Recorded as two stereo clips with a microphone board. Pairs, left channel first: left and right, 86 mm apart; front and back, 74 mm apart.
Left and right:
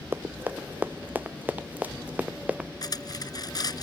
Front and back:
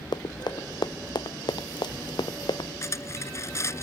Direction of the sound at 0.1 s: 20° right.